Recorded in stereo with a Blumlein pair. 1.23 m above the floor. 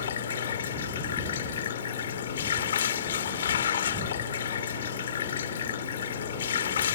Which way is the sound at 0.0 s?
65° left.